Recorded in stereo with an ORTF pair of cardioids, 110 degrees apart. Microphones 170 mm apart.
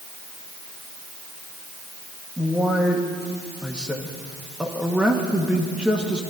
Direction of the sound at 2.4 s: 5° right.